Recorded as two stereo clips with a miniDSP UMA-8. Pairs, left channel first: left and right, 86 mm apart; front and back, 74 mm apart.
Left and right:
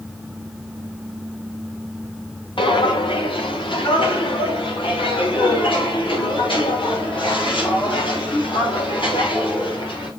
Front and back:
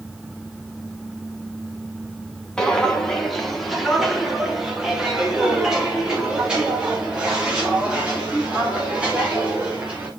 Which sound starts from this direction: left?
Footsteps, at 2.6 s.